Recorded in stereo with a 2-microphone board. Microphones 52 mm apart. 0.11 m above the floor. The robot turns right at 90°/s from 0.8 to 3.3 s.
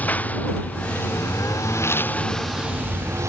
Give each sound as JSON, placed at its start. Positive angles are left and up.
{"t": 0.0, "sound": "a lawn mower", "side_deg": 30}